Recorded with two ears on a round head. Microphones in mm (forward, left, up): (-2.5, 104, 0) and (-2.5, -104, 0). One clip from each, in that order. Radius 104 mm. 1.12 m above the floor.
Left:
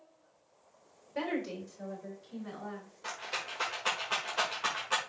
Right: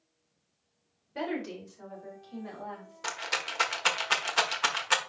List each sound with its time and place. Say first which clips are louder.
1.1 s a woman speaking: even; centre (ahead or behind), 3.5 m; by 3.1 s 10° right (ahead or behind), 4.5 m
3.0 s a rattle: right 6 dB; 55° right (ahead or behind), 1.5 m